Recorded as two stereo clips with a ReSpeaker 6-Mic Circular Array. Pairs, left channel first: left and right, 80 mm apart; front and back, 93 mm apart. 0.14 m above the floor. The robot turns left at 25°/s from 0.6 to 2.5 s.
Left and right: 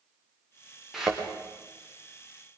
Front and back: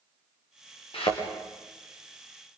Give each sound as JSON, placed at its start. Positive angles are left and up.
{"t": 0.9, "sound": "a thud", "azimuth_deg": 0, "distance_m": 6.0}